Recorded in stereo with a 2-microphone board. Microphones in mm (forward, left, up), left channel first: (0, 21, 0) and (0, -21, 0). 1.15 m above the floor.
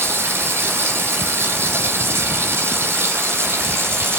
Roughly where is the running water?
Right.